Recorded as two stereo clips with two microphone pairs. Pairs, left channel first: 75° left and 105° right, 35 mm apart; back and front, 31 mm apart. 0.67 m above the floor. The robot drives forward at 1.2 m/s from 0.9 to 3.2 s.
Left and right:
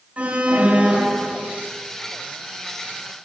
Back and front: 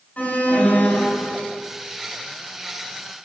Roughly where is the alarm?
Behind right.